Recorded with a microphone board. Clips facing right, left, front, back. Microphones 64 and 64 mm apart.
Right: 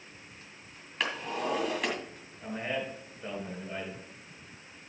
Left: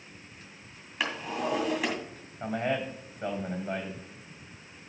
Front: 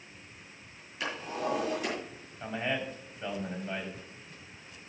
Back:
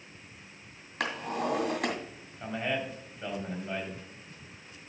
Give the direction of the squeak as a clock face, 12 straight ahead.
No squeak in this recording.